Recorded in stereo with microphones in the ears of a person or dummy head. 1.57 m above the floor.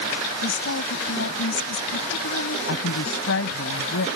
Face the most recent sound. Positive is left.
turn(degrees=70)  # may be behind; listen again after turning